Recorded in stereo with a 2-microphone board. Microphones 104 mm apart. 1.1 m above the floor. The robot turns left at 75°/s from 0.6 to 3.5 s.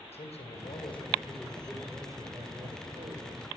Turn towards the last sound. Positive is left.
turn(degrees=-135)